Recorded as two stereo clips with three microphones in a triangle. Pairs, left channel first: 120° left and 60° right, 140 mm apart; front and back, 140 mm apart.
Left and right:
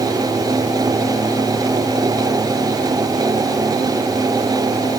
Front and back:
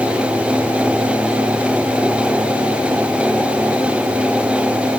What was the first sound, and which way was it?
Only background noise.